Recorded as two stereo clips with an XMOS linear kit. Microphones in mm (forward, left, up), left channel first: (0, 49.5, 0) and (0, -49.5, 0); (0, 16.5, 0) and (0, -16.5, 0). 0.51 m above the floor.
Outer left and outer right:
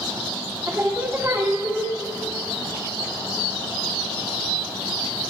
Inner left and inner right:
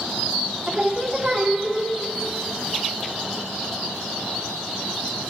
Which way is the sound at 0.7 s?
25° right (ahead or behind).